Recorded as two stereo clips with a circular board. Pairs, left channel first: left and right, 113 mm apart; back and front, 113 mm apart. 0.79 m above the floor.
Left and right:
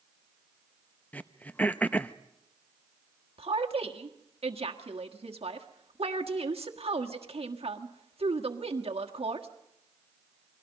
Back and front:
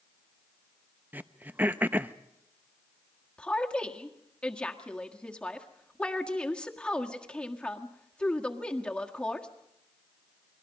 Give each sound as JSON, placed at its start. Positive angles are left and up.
{"t": 1.1, "sound": "throat clearing", "azimuth_deg": 40, "distance_m": 0.6}
{"t": 3.4, "sound": "a woman speaking", "azimuth_deg": -100, "distance_m": 1.6}